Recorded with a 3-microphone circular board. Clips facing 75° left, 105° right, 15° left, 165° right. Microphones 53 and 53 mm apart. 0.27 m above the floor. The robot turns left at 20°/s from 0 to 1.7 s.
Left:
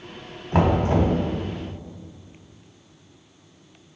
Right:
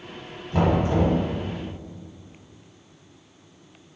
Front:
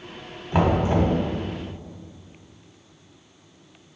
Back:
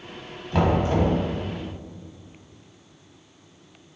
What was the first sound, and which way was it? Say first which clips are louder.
Knocking: left 1 dB, front 1 dB; 85° left.